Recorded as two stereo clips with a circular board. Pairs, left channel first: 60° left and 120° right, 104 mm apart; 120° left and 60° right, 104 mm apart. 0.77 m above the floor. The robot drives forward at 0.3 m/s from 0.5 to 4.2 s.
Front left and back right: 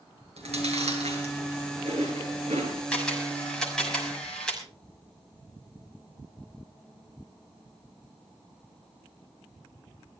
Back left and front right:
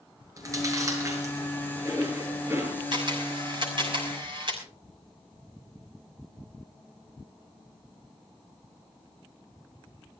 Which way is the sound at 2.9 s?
20° right.